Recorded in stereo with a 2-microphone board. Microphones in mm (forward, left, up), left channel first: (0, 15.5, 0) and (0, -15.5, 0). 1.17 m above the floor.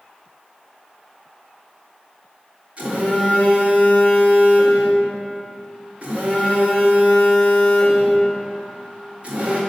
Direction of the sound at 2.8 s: 40° right (ahead or behind).